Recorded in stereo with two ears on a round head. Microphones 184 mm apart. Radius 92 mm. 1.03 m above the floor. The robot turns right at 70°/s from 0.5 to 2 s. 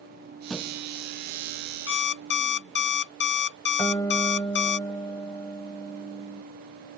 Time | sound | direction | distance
0.5 | a thud | centre (ahead or behind) | ?
1.9 | an alarm clock | 65° left (ahead or behind) | ?
3.8 | a guitar | 15° left (ahead or behind) | ?